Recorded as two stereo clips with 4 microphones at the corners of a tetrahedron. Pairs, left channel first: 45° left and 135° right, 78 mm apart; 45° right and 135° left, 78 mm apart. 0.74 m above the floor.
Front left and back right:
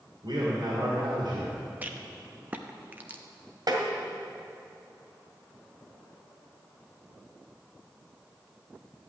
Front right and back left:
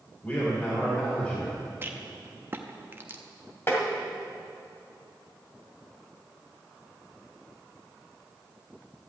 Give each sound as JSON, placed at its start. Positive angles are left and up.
{"t": 0.2, "sound": "a man speaking", "azimuth_deg": -105, "distance_m": 3.0}
{"t": 1.8, "sound": "a rattle", "azimuth_deg": 170, "distance_m": 0.8}
{"t": 3.7, "sound": "tapping", "azimuth_deg": -105, "distance_m": 2.0}